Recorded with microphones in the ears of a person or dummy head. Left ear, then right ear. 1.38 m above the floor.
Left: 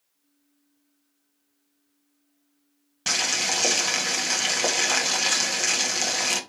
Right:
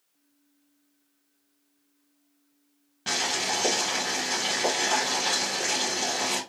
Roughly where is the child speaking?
No child speaking in this recording.